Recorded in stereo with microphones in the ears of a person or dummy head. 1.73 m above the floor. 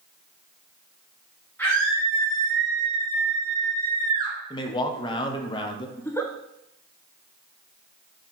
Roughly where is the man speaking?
Left.